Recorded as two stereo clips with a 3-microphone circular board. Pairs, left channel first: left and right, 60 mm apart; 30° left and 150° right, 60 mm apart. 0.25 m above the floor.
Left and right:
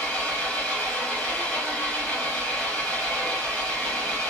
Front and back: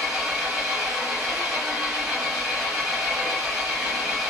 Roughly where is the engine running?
Behind left.